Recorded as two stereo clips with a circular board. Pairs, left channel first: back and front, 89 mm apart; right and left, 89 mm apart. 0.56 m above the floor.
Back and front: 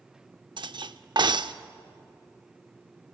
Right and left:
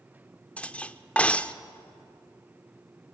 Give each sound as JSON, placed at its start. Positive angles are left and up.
{"t": 0.6, "sound": "cutlery clinking", "azimuth_deg": -15, "distance_m": 0.6}